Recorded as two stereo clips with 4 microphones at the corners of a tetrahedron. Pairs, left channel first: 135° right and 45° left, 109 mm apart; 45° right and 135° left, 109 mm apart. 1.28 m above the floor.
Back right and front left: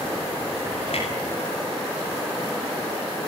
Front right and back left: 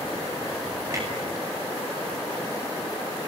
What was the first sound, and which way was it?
A clunk, 165° right.